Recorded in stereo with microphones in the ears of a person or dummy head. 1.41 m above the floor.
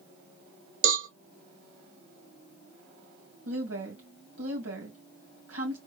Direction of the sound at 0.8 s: 80° right.